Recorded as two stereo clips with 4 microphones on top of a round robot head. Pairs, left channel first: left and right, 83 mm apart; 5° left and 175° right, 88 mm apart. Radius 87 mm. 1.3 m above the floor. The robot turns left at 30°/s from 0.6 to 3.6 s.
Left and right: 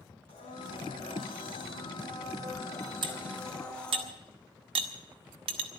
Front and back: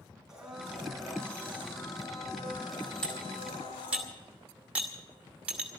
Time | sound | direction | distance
0.3 | a blender | 100° left | 5.5 m
3.0 | cutlery clinking | 80° right | 1.0 m